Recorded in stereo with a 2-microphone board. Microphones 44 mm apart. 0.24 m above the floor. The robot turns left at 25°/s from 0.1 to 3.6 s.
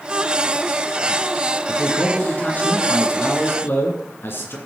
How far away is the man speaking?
About 2.5 m.